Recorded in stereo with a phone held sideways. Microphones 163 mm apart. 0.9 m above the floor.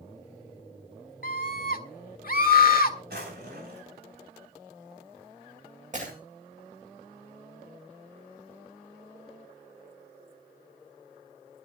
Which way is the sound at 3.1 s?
80° right.